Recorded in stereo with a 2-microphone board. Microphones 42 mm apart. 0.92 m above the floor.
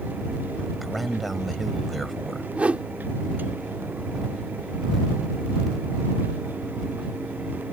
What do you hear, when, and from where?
0.8 s a man speaking: centre (ahead or behind)
2.5 s a whoosh: 30° right (ahead or behind)